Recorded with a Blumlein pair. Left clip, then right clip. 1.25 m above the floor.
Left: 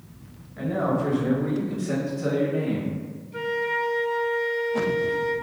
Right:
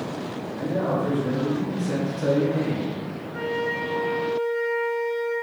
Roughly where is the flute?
Ahead left.